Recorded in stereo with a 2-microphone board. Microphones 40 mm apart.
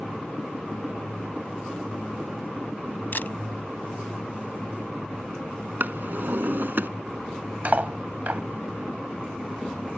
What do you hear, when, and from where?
3.1 s a camera shutter: 60° left (ahead or behind)
5.8 s a drawer: 60° right (ahead or behind)
7.7 s cutlery clinking: 45° right (ahead or behind)